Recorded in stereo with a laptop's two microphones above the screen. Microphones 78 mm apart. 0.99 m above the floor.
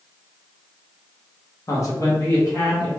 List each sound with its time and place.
1.7 s a man speaking: 40° left (ahead or behind), 0.7 m